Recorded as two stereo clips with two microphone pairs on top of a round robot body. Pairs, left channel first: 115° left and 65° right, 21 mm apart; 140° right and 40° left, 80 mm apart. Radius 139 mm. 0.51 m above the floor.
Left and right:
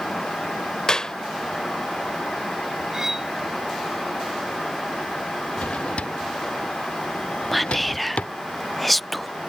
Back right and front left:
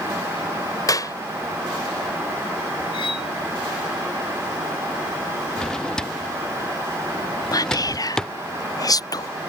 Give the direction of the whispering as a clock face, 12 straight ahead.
5 o'clock.